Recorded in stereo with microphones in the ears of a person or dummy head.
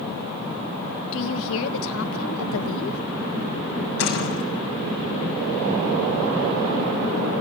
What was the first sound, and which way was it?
A woman speaking, 75° left (ahead or behind).